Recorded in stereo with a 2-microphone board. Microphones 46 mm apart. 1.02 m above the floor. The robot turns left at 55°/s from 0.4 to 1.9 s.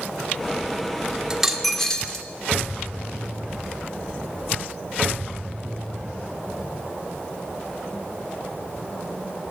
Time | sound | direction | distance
1.3 | a dropped coin | 165° right | 1.1 m